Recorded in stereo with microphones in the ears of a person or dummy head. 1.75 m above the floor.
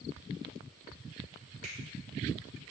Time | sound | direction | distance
1.6 | a finger snap | 55° right (ahead or behind) | 4 m